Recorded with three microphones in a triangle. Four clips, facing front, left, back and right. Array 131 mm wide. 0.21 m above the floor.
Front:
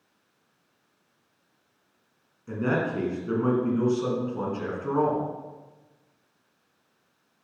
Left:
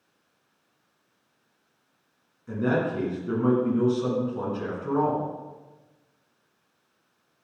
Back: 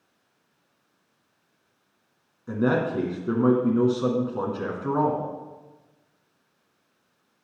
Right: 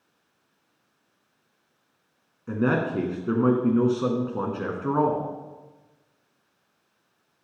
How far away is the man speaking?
About 2.5 m.